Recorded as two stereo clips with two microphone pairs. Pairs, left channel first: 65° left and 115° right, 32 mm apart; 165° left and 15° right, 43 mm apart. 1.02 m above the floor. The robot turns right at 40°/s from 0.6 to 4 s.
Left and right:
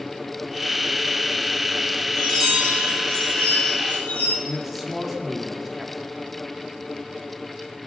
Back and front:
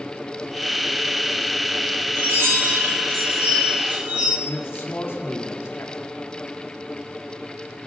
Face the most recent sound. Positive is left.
turn(degrees=155)